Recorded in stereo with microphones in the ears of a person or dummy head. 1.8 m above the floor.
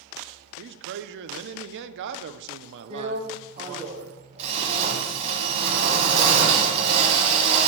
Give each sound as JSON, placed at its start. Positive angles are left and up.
{"t": 0.6, "sound": "a man speaking", "side_deg": -65, "distance_m": 0.5}
{"t": 2.9, "sound": "a drill", "side_deg": -30, "distance_m": 1.2}